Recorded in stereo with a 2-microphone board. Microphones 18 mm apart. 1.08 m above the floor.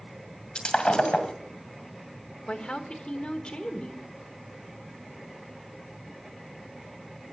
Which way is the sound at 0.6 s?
70° left (ahead or behind).